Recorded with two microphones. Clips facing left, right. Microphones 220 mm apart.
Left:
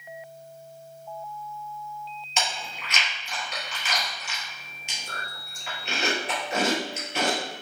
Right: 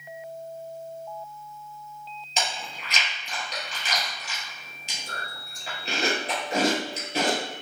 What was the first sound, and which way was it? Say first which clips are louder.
Chewing: even; 35° right (ahead or behind).